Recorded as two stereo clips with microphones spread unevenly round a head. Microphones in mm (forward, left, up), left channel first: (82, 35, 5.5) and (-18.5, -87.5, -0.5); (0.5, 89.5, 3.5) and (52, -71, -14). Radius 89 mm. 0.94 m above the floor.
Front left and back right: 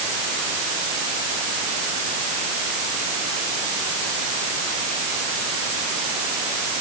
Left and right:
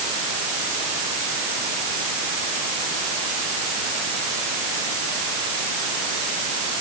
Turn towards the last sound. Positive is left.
No sound to turn to.